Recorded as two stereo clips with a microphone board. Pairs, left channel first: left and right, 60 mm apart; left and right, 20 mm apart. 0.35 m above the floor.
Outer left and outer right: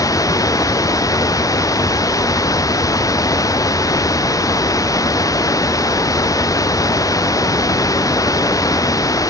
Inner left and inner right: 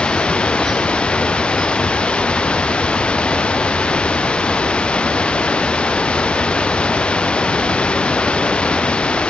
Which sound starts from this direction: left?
Running water, at 0.0 s.